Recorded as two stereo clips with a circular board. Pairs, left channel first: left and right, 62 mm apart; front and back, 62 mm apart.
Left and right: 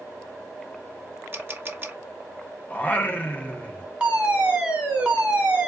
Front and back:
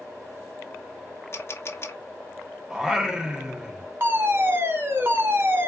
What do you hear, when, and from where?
1.3 s a camera shutter: 40° right, 0.7 m
2.7 s singing: 110° left, 0.6 m
4.0 s a fire alarm: 155° right, 1.2 m